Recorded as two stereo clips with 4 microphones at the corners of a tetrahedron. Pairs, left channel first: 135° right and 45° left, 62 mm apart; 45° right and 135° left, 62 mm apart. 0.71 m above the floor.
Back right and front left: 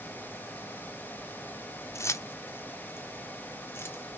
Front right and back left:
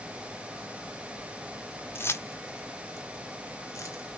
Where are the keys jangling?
95° right, 1.0 m; by 4.0 s 85° right, 2 m.